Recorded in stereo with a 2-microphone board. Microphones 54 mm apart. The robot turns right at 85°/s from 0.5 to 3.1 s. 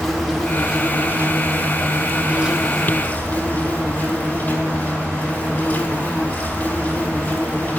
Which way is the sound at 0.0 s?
Straight behind.